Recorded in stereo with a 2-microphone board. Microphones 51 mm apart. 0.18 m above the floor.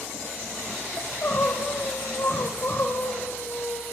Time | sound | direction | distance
1.0 | crying | 55° left (ahead or behind) | 4.5 m